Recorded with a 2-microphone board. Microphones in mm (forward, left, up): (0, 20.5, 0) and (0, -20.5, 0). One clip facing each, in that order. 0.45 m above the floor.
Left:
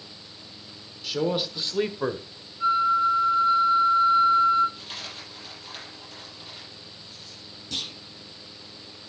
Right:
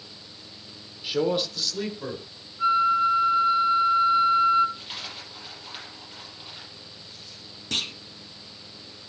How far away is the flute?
About 2.0 m.